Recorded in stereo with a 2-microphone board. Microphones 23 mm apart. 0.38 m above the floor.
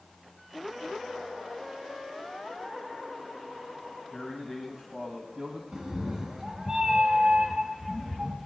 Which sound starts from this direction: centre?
A man speaking, at 4.1 s.